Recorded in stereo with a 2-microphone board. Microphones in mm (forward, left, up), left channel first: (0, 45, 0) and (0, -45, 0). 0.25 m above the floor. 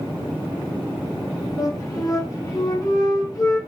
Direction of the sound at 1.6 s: 40° left (ahead or behind).